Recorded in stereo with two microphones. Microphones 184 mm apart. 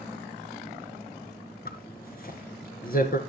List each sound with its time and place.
1.6 s a zipper: 55° left (ahead or behind), 1.9 m